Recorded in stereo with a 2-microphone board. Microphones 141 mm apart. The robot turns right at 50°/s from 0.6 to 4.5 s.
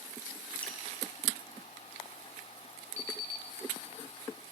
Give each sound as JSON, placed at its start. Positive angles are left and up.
{"t": 0.6, "sound": "dripping", "side_deg": 10, "distance_m": 1.8}
{"t": 3.0, "sound": "an alarm clock", "side_deg": -20, "distance_m": 0.8}